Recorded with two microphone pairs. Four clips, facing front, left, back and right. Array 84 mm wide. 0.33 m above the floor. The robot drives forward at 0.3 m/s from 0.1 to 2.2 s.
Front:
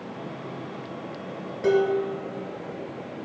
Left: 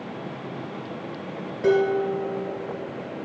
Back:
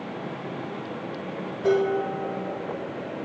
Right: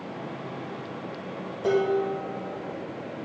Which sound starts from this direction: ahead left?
Dishes clattering, at 1.6 s.